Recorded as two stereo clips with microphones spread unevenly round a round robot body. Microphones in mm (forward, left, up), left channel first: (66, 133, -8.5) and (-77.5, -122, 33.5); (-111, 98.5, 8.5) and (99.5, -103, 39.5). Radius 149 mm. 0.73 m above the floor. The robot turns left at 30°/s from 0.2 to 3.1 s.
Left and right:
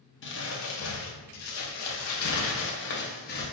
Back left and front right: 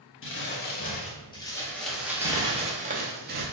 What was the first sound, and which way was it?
Crumpling, 100° left.